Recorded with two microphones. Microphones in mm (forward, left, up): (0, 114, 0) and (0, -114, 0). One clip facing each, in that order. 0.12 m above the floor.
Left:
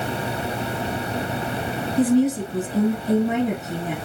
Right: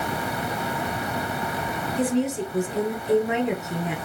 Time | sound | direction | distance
2.0 | a woman speaking | 35° left (ahead or behind) | 1.2 m